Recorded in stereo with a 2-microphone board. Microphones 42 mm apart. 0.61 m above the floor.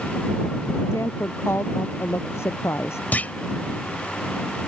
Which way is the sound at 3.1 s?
40° left (ahead or behind).